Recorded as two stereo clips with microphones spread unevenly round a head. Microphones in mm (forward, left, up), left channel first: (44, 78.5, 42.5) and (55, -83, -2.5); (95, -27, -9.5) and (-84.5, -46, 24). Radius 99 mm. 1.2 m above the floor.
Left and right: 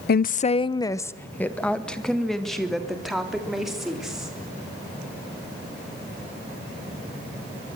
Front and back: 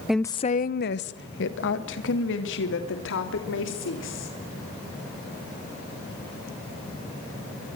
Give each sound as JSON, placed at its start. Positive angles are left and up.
{"t": 0.1, "sound": "a woman speaking", "azimuth_deg": 90, "distance_m": 0.5}